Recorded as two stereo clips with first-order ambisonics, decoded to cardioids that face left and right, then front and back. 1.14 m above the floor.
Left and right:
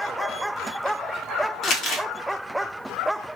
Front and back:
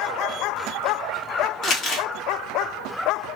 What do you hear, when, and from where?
1.6 s crumpling: 50° left, 0.9 m